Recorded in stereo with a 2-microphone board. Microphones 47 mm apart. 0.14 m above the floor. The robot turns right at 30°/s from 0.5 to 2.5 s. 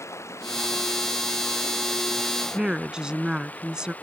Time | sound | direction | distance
0.0 | running water | 85° left | ?
2.5 | a woman speaking | 15° right (ahead or behind) | ?